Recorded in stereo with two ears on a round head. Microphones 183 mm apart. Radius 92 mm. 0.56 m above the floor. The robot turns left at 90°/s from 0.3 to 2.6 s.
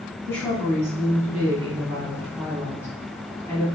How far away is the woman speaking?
About 4 m.